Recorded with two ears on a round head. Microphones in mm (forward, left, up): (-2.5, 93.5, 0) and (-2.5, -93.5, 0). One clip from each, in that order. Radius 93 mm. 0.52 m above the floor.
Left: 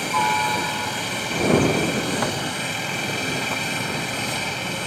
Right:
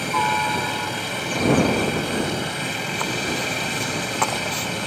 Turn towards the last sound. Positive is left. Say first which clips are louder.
# even
turn(degrees=10)  # may be behind; listen again after turning